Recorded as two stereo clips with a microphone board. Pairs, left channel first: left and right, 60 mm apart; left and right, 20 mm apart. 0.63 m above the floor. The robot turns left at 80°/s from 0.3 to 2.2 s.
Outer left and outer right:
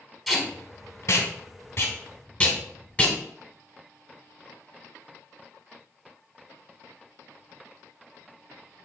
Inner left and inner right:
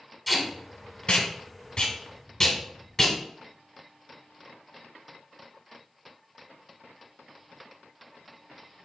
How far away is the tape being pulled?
About 0.9 m.